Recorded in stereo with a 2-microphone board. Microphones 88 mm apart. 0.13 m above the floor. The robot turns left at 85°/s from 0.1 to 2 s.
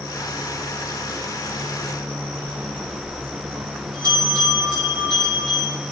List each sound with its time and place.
2.4 s a bell: 60° right (ahead or behind), 5 m